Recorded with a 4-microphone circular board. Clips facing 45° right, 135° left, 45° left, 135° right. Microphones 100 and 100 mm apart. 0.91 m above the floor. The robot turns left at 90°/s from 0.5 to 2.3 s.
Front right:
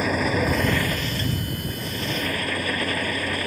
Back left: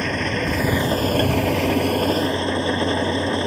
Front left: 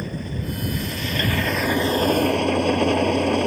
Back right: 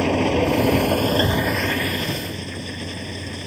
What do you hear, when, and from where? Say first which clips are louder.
0.0 s an engine running: front right 1 dB, back right 12 dB; 130° right; by 3.5 s 70° left